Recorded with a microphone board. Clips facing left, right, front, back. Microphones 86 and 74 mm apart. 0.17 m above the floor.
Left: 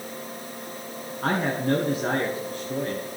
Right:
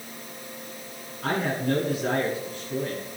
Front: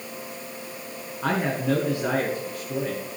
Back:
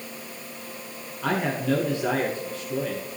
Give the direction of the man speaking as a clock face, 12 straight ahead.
10 o'clock.